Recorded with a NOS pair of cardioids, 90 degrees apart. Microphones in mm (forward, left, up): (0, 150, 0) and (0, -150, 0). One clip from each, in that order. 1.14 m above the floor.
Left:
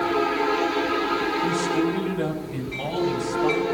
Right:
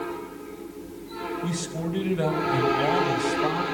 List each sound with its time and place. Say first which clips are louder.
1.4 s a man speaking: left 9 dB; 30° right, 4.5 m